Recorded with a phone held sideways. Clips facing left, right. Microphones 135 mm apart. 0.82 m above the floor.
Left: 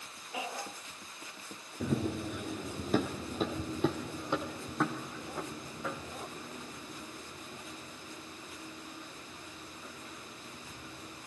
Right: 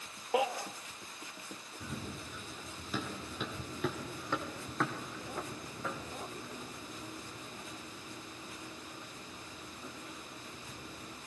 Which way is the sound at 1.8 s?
70° left (ahead or behind).